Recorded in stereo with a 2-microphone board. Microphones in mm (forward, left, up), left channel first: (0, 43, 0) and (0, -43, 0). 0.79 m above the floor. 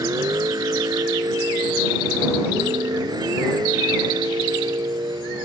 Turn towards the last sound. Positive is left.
turn(degrees=-55)  # may be behind; listen again after turning